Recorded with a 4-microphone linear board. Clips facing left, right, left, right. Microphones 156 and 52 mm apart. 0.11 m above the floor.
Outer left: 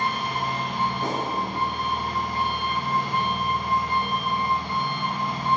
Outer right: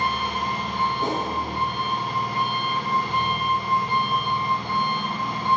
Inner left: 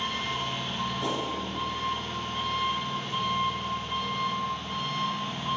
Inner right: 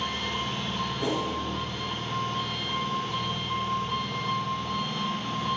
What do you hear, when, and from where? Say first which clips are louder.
0.0 s an engine running: outer right 1 dB, even; 70° right (ahead or behind), 2.5 m
1.0 s a whoosh: outer right 2 dB, inner right 3 dB; 25° right (ahead or behind), 1.9 m